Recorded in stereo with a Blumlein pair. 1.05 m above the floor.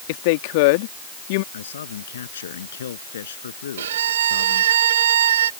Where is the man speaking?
65° left.